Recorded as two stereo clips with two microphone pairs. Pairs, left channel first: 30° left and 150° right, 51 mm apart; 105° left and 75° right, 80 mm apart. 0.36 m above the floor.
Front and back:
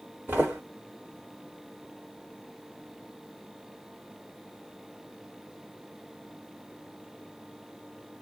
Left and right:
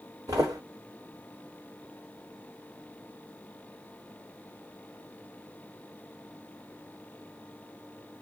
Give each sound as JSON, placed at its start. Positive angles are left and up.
{"t": 0.3, "sound": "footsteps", "azimuth_deg": -105, "distance_m": 1.2}